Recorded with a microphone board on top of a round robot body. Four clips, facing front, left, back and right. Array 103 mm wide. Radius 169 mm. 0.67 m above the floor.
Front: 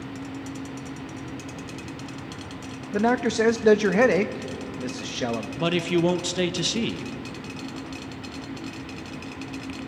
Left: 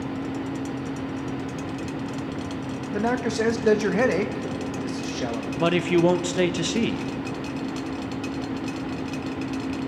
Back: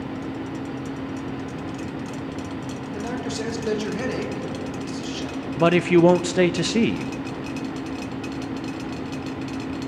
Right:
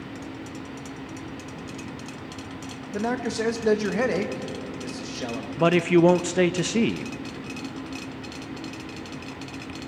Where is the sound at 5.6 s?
160° right, 0.7 m.